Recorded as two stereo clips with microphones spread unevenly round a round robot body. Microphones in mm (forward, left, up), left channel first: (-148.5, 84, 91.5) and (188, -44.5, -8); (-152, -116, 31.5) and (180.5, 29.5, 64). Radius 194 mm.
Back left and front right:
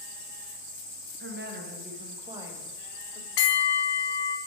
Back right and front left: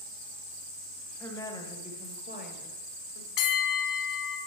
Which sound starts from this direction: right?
A woman speaking, at 1.2 s.